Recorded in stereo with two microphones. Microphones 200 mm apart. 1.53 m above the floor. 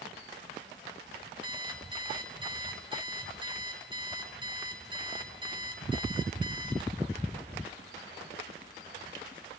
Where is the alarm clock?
20° right (ahead or behind), 3 m.